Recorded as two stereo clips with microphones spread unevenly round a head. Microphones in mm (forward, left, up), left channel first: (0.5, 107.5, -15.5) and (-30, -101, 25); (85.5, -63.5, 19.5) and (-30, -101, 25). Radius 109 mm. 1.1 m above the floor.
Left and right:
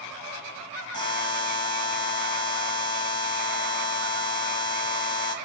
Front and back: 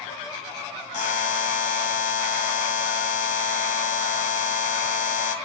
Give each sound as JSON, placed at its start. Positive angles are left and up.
{"t": 0.9, "sound": "a buzzer", "azimuth_deg": 10, "distance_m": 2.5}